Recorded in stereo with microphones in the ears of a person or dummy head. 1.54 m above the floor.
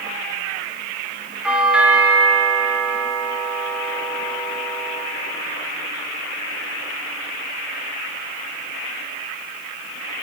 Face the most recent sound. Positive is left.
turn(degrees=-5)  # may be behind; listen again after turning